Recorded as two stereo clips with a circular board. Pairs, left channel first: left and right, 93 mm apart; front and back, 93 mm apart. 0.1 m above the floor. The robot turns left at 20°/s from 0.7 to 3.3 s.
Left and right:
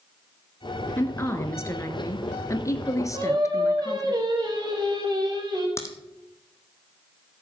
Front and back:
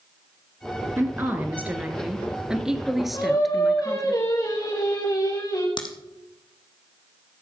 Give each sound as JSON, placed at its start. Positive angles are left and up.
{"t": 1.0, "sound": "a woman speaking", "azimuth_deg": 135, "distance_m": 1.5}
{"t": 3.1, "sound": "singing", "azimuth_deg": -45, "distance_m": 5.0}
{"t": 5.8, "sound": "a crack", "azimuth_deg": 30, "distance_m": 1.7}